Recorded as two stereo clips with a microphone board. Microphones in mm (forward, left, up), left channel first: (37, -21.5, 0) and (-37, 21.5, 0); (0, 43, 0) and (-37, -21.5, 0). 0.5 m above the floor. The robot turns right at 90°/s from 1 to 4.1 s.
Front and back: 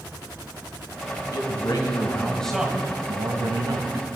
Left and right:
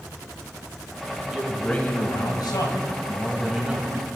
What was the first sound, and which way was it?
A man speaking, 50° right.